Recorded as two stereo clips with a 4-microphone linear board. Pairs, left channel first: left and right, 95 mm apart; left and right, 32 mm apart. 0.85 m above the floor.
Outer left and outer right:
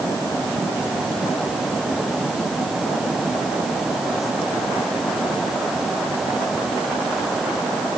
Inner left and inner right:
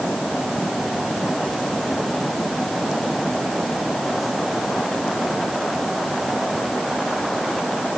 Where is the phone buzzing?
I don't hear a phone buzzing.